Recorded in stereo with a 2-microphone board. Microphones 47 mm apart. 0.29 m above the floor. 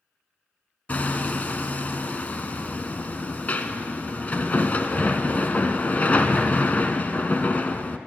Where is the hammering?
35° left (ahead or behind), 0.7 m.